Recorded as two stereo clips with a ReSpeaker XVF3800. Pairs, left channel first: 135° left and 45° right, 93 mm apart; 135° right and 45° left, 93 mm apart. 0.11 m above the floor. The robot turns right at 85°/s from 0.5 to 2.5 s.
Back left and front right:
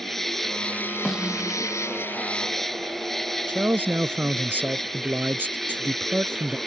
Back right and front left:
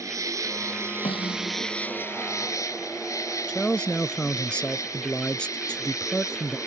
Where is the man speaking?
75° right.